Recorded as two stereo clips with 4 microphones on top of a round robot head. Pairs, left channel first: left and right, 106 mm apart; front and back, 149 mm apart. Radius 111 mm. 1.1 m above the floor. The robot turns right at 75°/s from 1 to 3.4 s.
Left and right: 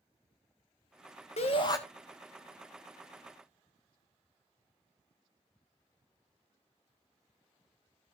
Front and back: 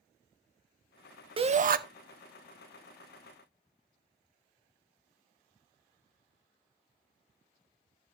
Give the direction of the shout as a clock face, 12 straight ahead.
8 o'clock.